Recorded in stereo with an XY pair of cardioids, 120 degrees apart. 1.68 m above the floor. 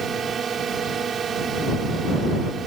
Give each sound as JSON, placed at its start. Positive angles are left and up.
{"t": 0.0, "sound": "a drone", "azimuth_deg": -40}